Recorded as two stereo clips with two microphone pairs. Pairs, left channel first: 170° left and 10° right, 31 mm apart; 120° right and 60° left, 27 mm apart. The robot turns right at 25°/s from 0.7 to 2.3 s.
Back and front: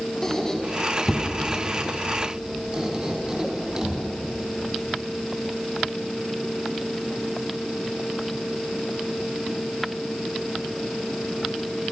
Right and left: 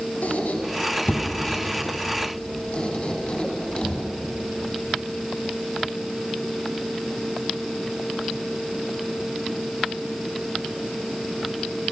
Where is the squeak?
110° right, 3.5 m; by 4.0 s 70° right, 3.5 m.